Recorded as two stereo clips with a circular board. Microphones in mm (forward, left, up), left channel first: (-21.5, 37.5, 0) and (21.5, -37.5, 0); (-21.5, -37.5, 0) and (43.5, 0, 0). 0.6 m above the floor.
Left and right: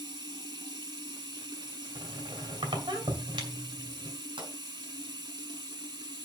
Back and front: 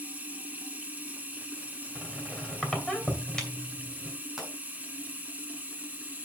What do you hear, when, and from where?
0.0 s running water: 35° right, 1.3 m
1.9 s a squeak: 70° right, 2.5 m
4.4 s a pop: 55° right, 5 m